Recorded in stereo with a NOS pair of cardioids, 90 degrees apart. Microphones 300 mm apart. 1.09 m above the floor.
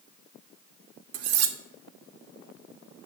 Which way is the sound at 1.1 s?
60° right.